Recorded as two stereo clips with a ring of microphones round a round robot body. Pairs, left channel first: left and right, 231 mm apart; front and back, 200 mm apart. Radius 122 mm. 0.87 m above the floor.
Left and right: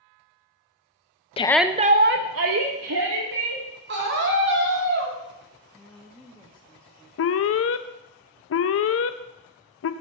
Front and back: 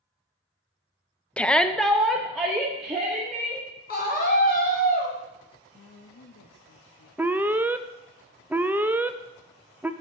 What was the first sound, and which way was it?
A shout, 75° left.